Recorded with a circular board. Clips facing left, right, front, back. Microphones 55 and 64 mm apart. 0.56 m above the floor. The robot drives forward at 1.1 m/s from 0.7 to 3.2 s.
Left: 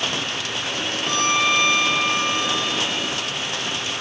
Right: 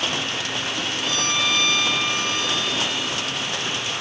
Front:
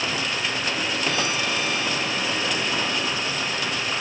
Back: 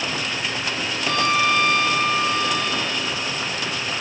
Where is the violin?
145° left; by 3.3 s 165° left.